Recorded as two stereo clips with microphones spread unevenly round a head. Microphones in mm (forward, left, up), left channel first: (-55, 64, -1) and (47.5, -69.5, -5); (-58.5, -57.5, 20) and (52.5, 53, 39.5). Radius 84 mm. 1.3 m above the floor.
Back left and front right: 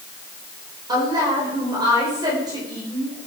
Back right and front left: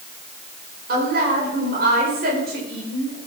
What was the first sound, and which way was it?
A woman speaking, 15° left.